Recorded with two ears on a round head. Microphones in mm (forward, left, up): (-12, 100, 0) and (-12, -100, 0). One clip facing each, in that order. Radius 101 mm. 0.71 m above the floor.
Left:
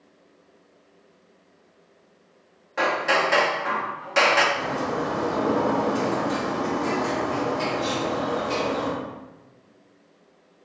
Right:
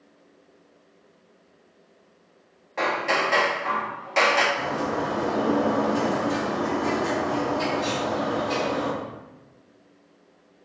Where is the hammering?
10° left (ahead or behind), 0.7 m.